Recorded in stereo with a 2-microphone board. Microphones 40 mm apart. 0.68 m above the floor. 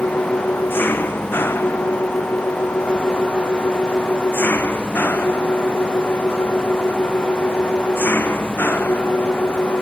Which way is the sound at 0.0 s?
55° left (ahead or behind).